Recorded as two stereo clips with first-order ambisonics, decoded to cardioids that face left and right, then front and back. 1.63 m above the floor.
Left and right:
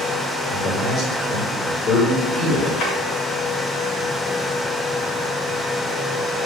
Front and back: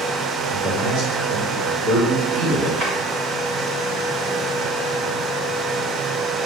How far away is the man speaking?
About 3 m.